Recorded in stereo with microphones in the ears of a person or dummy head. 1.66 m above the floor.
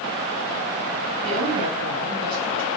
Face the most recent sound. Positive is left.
turn(degrees=-75)  # may be behind; listen again after turning